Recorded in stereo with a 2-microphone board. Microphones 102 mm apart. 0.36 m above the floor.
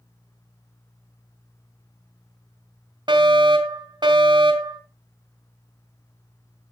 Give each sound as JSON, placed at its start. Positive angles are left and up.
{"t": 3.1, "sound": "a fire alarm", "side_deg": -50, "distance_m": 3.0}